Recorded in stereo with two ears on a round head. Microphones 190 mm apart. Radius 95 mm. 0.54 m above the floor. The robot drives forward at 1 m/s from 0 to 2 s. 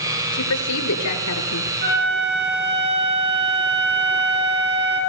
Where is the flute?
50° right (ahead or behind), 7 m.